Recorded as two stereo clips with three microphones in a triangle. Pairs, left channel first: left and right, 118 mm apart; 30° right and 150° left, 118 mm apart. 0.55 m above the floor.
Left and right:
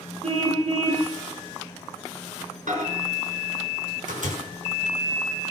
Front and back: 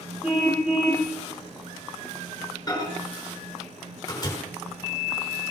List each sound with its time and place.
0.2 s a car horn: 125° right, 8 m
2.7 s a microwave: 90° right, 6 m